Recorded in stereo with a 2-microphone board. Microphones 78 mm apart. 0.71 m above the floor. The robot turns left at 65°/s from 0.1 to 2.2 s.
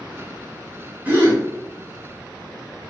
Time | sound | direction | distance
1.1 | a gasp | 20° right (ahead or behind) | 1.5 m